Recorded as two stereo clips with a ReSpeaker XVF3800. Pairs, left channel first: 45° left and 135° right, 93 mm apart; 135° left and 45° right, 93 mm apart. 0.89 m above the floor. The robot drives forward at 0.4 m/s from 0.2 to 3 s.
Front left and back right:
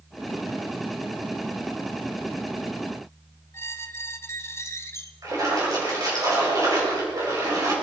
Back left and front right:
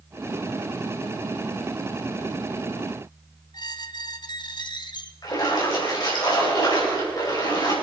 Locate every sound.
3.5 s a squeak: 105° left, 0.9 m
5.2 s a splash: 175° left, 5 m